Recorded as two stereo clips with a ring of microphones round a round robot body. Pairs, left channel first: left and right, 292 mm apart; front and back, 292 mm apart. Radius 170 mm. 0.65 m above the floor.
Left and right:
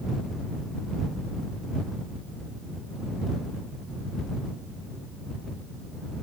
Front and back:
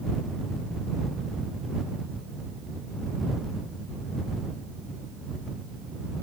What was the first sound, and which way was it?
Only background noise.